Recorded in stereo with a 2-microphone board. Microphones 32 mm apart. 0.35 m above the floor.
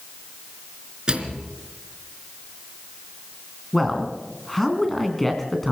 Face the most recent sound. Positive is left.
turn(degrees=10)  # may be behind; listen again after turning